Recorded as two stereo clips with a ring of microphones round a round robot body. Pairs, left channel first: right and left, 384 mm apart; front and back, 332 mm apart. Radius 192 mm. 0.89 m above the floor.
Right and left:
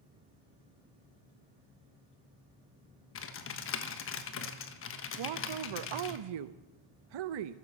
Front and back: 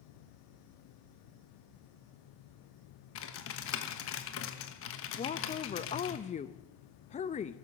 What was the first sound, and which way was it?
Typing on a keyboard, 40° right.